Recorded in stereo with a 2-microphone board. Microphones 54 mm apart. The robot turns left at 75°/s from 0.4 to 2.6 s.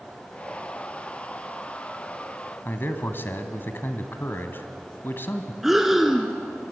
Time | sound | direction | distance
2.6 | a man speaking | 40° left (ahead or behind) | 1.6 m
5.6 | breathing | 5° right (ahead or behind) | 1.6 m